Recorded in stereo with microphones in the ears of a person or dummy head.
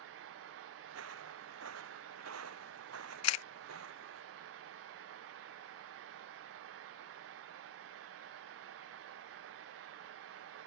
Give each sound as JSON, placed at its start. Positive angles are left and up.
{"t": 0.9, "sound": "footsteps", "side_deg": -75}
{"t": 3.2, "sound": "a camera shutter", "side_deg": 75}